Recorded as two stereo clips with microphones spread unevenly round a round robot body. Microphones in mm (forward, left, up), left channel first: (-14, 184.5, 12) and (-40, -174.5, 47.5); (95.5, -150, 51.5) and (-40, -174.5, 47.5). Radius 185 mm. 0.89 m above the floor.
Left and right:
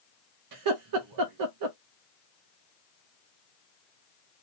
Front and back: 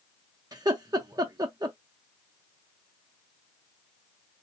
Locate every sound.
0.5 s laughter: 110° right, 0.7 m